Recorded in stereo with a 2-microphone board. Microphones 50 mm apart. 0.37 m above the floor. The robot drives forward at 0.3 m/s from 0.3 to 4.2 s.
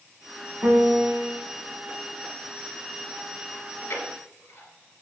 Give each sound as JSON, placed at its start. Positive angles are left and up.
{"t": 0.6, "sound": "a piano", "side_deg": -60, "distance_m": 2.0}
{"t": 3.5, "sound": "chewing", "side_deg": 75, "distance_m": 1.6}